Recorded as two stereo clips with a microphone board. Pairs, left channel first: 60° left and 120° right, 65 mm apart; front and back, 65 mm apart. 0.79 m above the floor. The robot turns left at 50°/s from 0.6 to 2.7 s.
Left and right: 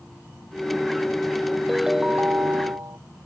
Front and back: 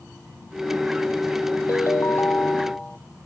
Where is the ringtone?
30° right; by 3.0 s 80° right.